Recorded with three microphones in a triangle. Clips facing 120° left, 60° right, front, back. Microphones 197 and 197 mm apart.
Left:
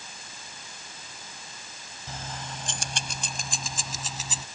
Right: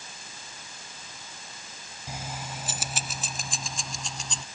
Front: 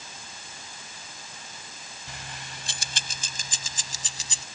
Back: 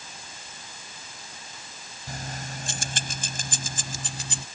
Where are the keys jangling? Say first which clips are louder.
Right 1 dB, back 8 dB; 140° right; by 4.5 s 155° right.